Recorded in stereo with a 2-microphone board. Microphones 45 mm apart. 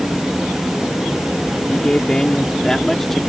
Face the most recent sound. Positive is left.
turn(degrees=5)  # may be behind; listen again after turning